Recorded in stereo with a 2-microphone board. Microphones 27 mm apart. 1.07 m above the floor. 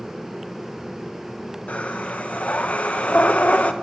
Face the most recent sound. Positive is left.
turn(degrees=65)  # may be behind; listen again after turning